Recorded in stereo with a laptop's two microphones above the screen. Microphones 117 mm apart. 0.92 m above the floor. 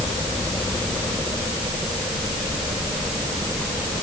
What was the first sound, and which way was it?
Only background noise.